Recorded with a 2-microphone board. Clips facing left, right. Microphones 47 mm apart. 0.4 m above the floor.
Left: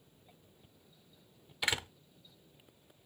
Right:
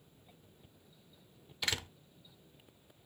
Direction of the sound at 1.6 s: 15° left (ahead or behind).